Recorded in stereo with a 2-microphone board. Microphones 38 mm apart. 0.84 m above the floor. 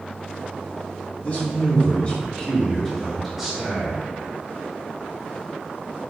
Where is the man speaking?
45° left (ahead or behind), 1.7 m; by 4.0 s 20° right (ahead or behind), 1.2 m.